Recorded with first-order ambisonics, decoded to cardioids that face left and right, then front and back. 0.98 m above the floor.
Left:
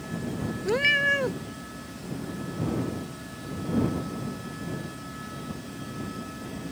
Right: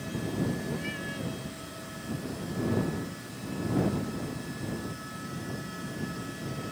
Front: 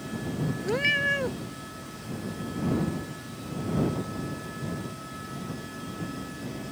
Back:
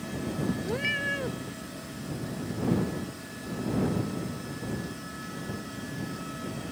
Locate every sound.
0.7 s a cat meowing: 70° left